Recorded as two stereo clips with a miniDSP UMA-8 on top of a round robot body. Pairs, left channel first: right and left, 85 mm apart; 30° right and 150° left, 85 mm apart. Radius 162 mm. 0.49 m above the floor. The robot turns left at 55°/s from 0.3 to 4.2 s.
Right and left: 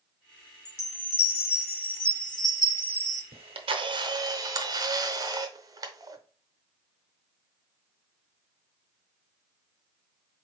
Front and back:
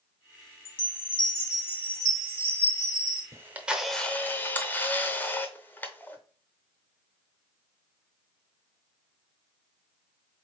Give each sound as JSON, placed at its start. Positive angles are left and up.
{"t": 0.7, "sound": "a chime", "azimuth_deg": -40, "distance_m": 0.7}
{"t": 3.3, "sound": "a camera shutter", "azimuth_deg": 90, "distance_m": 0.7}